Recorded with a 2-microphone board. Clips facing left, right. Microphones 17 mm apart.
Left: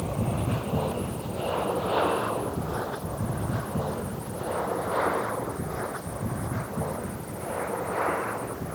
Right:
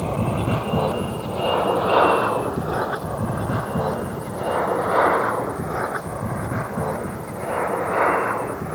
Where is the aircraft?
70° right (ahead or behind); by 8.8 s 60° right (ahead or behind).